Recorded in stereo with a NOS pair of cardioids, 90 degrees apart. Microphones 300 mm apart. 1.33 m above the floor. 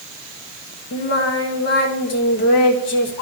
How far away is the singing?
About 2.0 m.